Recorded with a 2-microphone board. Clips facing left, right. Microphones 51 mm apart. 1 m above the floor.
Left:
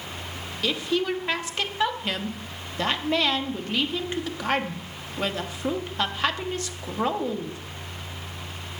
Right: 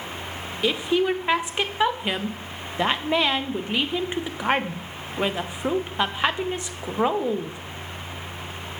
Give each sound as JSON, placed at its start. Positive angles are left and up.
{"t": 0.6, "sound": "a woman speaking", "side_deg": -20, "distance_m": 0.5}